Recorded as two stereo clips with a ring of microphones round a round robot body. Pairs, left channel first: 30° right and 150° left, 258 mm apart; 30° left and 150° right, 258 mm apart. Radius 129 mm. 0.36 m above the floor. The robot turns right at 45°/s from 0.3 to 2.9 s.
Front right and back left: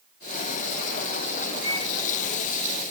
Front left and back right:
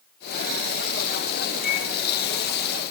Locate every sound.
1.6 s a microwave: 60° right, 1.5 m; by 1.9 s 50° right, 1.5 m